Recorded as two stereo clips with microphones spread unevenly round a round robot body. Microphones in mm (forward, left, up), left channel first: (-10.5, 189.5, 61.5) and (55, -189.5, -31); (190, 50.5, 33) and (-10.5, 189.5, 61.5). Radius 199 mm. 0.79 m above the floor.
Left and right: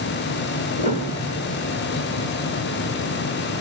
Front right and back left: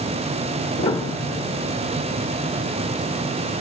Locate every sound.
0.8 s a piano: 35° left, 1.5 m